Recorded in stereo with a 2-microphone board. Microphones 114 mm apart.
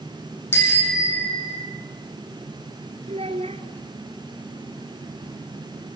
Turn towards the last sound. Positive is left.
turn(degrees=-60)  # may be behind; listen again after turning